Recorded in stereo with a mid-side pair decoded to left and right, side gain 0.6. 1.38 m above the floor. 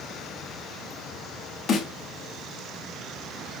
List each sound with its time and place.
1.7 s a snare drum: 50° left, 2.5 m